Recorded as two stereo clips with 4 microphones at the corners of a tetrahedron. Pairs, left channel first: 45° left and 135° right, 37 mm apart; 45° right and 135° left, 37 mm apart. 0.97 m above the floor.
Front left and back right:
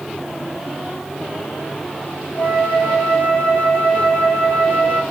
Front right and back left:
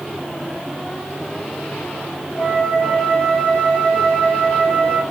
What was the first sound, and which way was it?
A flute, 15° left.